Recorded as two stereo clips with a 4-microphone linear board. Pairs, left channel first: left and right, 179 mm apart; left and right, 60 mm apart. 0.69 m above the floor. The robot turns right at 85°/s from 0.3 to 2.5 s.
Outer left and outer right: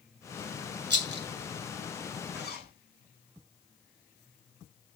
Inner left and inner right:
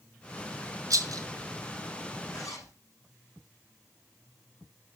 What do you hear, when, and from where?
0.9 s a rattle: 75° right (ahead or behind), 1.8 m
2.3 s a zipper: 75° left (ahead or behind), 5.5 m; by 2.7 s 60° left (ahead or behind), 5.5 m